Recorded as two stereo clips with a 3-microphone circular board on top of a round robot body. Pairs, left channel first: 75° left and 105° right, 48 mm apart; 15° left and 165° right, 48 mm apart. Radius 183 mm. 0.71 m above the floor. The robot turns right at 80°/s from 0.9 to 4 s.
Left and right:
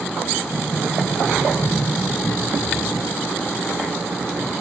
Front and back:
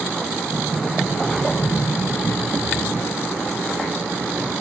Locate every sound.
0.5 s a sliding door: 105° right, 8 m; by 3.1 s 70° left, 8 m